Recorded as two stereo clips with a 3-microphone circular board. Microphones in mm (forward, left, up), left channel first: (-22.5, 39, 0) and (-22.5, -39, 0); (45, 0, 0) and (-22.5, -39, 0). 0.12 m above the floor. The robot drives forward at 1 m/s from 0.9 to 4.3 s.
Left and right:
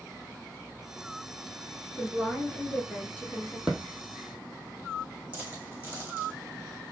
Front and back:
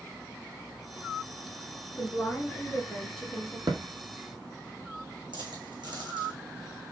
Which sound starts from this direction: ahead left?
A woman speaking, at 2.0 s.